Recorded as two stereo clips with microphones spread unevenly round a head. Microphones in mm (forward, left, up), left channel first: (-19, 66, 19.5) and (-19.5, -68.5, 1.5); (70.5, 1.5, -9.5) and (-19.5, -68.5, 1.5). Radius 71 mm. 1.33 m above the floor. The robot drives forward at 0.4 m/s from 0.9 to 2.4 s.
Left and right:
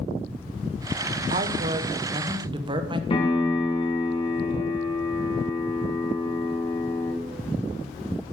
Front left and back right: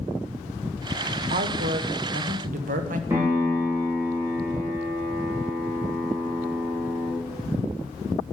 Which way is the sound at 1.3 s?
125° right.